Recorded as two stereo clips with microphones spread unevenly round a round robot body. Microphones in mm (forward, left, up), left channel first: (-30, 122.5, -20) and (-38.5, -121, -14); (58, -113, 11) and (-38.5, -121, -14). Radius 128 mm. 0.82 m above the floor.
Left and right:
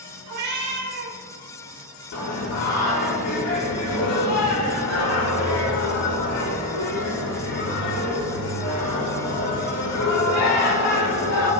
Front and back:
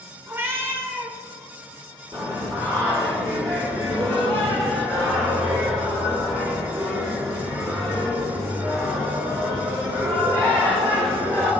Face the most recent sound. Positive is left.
turn(degrees=105)